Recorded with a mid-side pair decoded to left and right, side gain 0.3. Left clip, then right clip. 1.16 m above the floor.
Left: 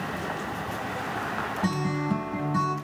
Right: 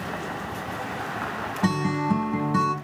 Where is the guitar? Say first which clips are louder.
Right 3 dB; 60° right, 0.9 m.